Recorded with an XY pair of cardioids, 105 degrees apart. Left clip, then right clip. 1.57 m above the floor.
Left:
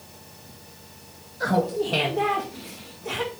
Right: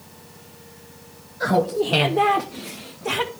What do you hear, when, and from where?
1.4 s laughter: 15° right, 0.9 m; by 3.3 s 60° right, 1.7 m